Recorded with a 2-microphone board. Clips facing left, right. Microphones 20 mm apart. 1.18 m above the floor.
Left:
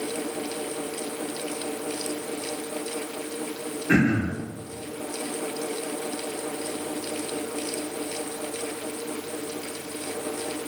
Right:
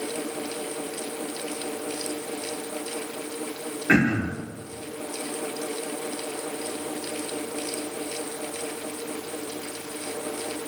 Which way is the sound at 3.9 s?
45° right (ahead or behind).